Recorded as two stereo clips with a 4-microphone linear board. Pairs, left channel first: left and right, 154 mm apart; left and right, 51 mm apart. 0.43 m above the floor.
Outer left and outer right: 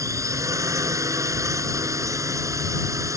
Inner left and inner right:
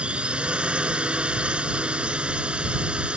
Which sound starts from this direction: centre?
A drone, at 0.0 s.